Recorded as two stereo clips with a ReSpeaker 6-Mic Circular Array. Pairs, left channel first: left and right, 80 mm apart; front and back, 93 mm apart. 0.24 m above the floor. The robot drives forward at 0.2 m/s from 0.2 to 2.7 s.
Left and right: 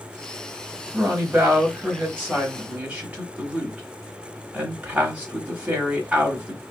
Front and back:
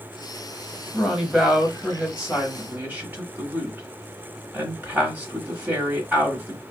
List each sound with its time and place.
0.9 s a woman speaking: 80° right, 0.9 m; by 6.6 s 135° right, 1.0 m